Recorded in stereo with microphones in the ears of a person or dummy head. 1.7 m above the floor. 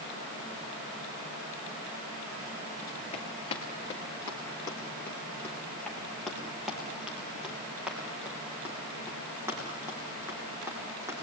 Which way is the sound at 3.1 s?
25° left (ahead or behind).